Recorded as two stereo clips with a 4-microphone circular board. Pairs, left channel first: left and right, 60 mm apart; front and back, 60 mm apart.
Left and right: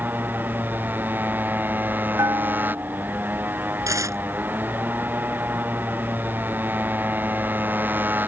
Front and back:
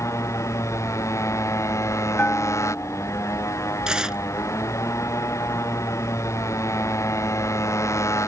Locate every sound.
0.0 s a motorcycle: 35° right
2.2 s a bell: 60° right
3.9 s tearing paper: 105° right